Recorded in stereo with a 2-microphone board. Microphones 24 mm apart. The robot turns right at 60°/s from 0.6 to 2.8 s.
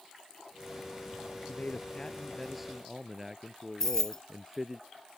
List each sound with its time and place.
1.5 s a man speaking: 115° left; by 4.8 s 165° right
3.8 s keys jangling: 20° left (ahead or behind)